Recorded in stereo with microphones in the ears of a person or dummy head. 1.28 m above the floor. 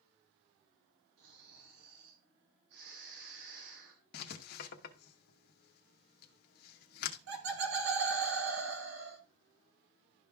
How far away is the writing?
About 1.0 m.